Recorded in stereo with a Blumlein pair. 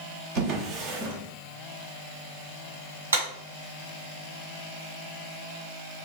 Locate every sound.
0.3 s a drawer: 35° right, 1.2 m
3.1 s a clap: 70° right, 2 m